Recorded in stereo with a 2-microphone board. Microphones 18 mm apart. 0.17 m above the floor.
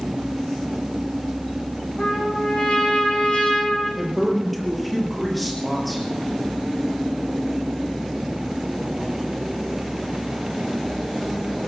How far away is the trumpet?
About 8 m.